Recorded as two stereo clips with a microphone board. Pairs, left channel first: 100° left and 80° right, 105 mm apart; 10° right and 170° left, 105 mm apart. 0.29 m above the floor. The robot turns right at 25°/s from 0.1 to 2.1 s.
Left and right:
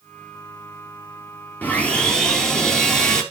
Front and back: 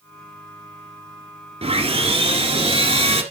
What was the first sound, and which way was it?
Sawing, 175° left.